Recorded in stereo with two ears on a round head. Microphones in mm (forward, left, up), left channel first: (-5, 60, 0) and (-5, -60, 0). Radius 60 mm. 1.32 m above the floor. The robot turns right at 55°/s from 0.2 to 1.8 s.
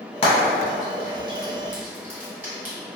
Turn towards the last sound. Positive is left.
turn(degrees=-15)  # may be behind; listen again after turning